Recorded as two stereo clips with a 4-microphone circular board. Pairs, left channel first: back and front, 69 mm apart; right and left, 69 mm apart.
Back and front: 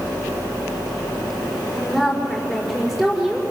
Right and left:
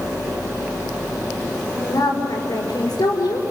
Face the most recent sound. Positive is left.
turn(degrees=-85)